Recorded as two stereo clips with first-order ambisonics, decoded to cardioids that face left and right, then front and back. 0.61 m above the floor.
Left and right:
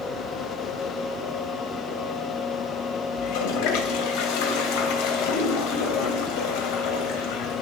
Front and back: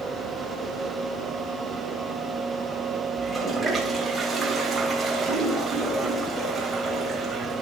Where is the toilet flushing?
100° left, 2.5 m.